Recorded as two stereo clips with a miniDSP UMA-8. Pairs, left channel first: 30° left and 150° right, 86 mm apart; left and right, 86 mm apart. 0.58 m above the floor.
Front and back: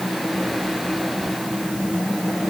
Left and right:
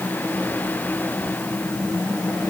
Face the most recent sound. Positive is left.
No sound to turn to.